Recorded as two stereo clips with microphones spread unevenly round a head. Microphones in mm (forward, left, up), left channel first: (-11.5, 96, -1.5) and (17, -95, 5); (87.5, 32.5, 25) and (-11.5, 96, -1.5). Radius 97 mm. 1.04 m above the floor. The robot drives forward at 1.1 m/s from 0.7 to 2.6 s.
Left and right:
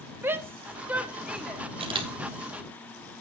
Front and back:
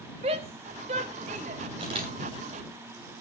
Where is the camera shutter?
145° right, 2.5 m; by 2.1 s 150° right, 2.5 m.